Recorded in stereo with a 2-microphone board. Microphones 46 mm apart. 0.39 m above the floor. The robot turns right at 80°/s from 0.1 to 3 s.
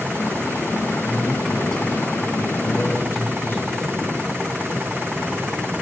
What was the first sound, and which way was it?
A man speaking, 40° right.